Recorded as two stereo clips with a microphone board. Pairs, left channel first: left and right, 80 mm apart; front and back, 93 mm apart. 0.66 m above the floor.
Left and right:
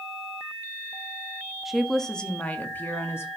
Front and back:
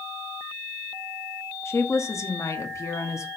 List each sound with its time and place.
1.6 s a woman speaking: 5° right, 1.1 m; by 3.3 s 45° left, 1.5 m